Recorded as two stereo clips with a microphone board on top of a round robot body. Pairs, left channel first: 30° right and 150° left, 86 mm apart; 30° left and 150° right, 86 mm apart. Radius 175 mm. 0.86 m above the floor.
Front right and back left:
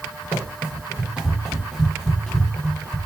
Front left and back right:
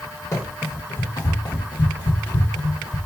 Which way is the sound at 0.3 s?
90° left.